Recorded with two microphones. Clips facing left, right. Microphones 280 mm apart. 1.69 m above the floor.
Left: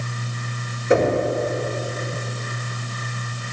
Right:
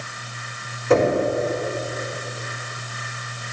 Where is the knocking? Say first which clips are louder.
Even; 20° left (ahead or behind), 5 m.